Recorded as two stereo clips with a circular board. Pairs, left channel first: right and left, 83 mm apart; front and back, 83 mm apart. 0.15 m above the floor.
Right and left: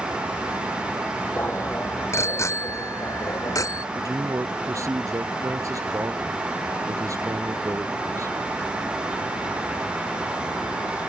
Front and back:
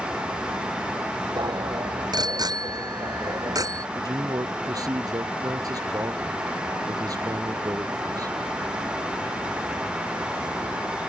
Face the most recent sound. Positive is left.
turn(degrees=140)